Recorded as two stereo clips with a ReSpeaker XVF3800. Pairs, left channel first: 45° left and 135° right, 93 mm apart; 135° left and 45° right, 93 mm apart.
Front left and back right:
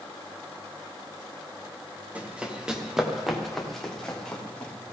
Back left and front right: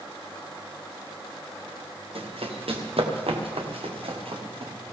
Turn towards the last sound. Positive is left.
turn(degrees=-30)